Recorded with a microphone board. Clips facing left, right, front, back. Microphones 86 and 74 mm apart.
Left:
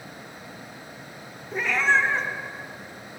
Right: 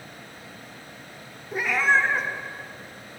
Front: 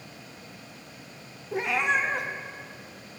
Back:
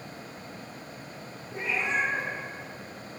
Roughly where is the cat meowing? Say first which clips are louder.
Even, front 4 dB; ahead.